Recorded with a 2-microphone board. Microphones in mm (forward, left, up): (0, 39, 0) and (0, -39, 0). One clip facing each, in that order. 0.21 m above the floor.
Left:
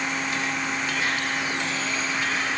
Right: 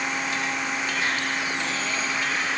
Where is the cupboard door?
I don't hear a cupboard door.